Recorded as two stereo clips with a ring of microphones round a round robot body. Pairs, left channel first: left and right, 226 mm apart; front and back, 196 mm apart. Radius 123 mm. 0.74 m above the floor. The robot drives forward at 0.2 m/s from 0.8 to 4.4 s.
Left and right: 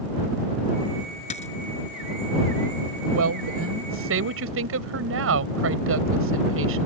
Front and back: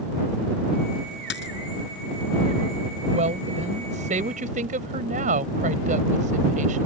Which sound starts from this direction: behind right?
A woman speaking, at 3.1 s.